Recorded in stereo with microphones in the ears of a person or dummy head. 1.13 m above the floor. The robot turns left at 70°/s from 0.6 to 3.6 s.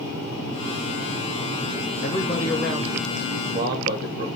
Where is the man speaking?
45° left, 1.0 m; by 4.3 s 70° right, 1.0 m.